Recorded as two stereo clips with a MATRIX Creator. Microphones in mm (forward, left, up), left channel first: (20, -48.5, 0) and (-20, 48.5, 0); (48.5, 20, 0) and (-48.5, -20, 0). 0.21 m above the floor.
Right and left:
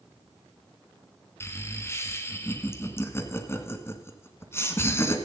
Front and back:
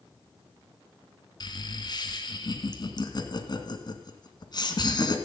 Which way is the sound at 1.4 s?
5° right.